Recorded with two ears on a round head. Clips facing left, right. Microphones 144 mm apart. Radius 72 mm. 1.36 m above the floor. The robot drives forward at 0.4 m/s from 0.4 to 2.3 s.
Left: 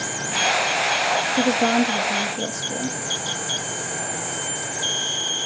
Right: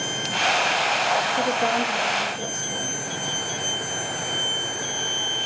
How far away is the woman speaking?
About 2 m.